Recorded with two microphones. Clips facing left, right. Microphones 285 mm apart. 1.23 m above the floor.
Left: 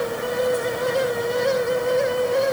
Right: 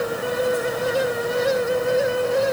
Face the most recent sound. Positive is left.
No sound to turn to.